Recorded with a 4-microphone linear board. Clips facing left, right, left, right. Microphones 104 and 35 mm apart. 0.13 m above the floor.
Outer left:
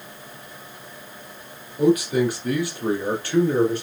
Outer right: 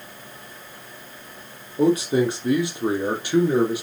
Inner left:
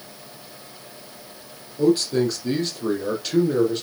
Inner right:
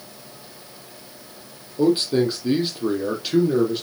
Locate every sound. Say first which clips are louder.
1.8 s a man speaking: even, even; 30° right (ahead or behind), 3.5 m; by 3.8 s 10° right (ahead or behind), 3.5 m